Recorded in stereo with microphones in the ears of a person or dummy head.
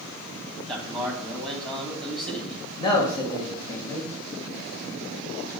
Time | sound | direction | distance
0.7 | a man speaking | centre (ahead or behind) | 2.5 m
2.8 | a man speaking | 25° left (ahead or behind) | 3 m